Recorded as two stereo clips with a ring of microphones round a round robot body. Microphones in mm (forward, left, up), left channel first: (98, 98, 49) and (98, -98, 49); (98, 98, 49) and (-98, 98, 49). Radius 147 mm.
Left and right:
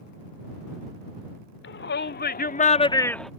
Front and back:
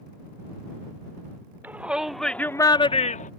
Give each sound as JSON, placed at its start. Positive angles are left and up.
{"t": 1.6, "sound": "a shout", "azimuth_deg": 100}